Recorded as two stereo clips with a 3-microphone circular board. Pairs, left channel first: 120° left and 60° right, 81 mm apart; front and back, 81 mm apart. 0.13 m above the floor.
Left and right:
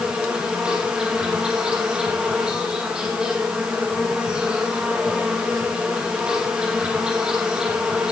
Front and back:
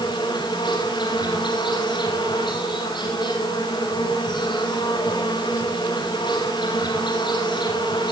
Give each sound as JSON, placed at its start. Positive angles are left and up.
{"t": 0.0, "sound": "an insect", "azimuth_deg": 20, "distance_m": 4.5}